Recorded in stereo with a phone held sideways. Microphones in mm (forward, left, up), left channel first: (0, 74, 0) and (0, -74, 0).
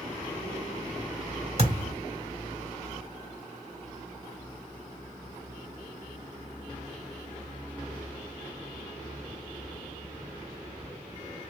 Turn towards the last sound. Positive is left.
turn(degrees=-45)  # may be behind; listen again after turning